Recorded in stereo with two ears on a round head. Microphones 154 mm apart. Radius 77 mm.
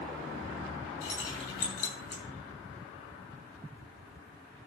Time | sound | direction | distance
1.0 | keys jangling | 75° left (ahead or behind) | 6 m